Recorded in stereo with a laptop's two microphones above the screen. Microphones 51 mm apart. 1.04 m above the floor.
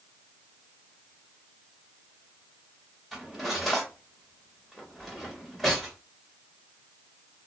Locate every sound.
3.1 s cutlery clinking: 5° right (ahead or behind), 1.2 m